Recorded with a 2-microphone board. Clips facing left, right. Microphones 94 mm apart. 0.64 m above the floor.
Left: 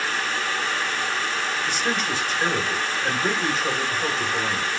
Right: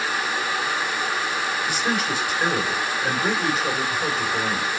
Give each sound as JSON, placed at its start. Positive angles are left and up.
{"t": 1.6, "sound": "a man speaking", "side_deg": -10, "distance_m": 3.5}